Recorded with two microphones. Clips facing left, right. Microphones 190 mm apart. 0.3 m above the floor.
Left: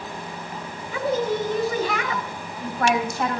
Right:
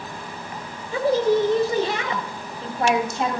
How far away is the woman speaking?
About 1.3 m.